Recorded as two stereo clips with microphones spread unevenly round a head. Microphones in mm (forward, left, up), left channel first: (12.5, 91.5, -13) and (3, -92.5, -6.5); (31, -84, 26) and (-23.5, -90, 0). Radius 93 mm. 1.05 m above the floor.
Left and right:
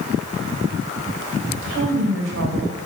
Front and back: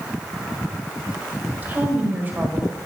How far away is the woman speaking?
About 5 m.